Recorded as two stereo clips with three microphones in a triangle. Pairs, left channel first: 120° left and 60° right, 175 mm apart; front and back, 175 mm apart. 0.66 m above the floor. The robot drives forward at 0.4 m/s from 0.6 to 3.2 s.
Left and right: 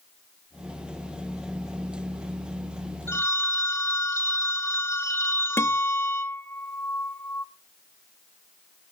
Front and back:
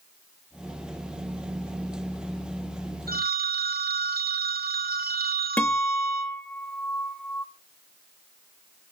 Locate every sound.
3.1 s a phone ringing: 165° right, 1.2 m
5.6 s a guitar: 70° left, 1.1 m